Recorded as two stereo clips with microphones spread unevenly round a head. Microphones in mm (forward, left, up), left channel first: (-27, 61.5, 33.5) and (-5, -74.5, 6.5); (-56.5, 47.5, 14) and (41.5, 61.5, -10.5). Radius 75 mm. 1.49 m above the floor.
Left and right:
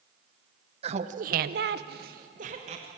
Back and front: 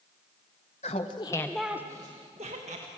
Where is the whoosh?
I don't hear a whoosh.